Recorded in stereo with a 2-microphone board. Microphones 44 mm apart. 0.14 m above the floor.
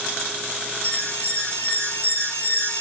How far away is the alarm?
About 3.5 m.